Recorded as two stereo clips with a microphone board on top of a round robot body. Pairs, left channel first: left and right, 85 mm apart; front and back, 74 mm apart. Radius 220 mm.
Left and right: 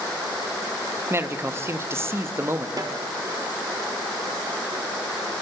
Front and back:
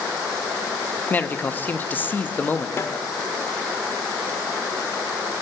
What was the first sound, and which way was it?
A man speaking, 50° right.